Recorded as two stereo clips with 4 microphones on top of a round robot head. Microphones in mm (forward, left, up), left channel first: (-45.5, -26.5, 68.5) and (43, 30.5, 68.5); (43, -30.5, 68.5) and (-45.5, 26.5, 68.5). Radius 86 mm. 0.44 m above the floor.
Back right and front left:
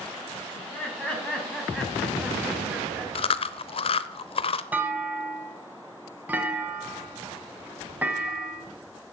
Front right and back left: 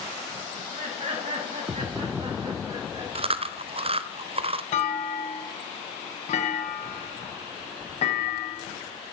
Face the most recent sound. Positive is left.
turn(degrees=-40)